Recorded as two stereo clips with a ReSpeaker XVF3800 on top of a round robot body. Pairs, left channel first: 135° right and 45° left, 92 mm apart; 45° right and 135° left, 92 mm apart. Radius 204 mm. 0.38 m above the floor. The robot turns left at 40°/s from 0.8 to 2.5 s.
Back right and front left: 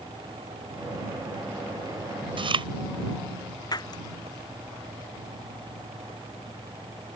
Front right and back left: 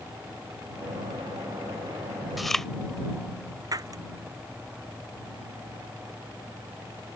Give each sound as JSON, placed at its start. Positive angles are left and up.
{"t": 2.4, "sound": "chewing", "azimuth_deg": 45}
{"t": 3.7, "sound": "breaking glass", "azimuth_deg": 180}